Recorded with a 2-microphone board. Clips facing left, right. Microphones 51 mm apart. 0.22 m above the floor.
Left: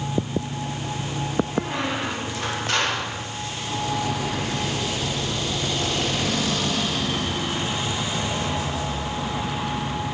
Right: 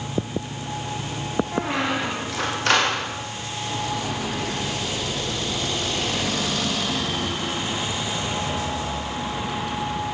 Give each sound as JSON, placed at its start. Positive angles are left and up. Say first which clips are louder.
{"t": 1.5, "sound": "a squeak", "louder": "right 2 dB", "side_deg": -75, "distance_m": 8.5}